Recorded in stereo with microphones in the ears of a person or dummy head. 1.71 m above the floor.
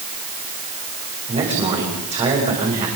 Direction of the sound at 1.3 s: 30° right (ahead or behind).